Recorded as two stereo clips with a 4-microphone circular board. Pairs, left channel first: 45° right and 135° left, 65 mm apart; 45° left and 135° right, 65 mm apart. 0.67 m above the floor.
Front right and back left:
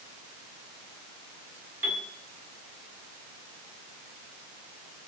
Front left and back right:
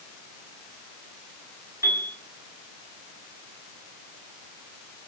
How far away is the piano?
About 6.5 m.